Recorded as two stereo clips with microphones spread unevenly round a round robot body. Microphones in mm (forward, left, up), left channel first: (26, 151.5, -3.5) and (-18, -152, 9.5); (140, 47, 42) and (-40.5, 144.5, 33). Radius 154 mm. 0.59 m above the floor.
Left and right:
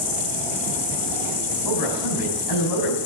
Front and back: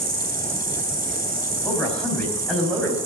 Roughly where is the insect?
Behind left.